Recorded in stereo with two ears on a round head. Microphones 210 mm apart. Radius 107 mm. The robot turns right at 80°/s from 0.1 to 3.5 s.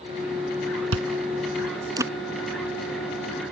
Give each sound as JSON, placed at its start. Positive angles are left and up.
{"t": 0.9, "sound": "chewing", "side_deg": -65}